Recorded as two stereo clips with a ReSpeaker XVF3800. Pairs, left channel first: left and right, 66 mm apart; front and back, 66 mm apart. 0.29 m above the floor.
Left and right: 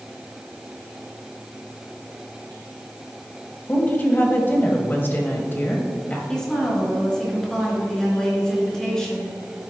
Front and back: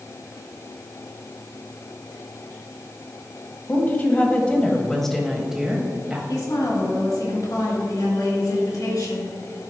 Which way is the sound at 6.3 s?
10° left.